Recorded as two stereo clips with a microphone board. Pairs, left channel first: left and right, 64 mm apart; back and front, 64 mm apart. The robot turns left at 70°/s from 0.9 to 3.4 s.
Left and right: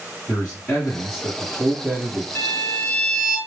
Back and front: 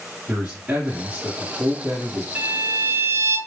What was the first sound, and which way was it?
A man speaking, 40° left.